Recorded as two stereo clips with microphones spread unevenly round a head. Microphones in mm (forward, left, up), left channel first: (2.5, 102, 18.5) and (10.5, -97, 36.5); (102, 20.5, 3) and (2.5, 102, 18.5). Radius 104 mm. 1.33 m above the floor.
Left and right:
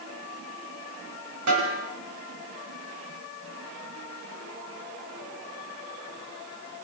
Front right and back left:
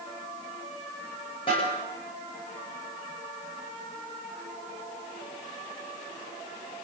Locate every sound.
1.5 s a snare drum: 105° right, 9 m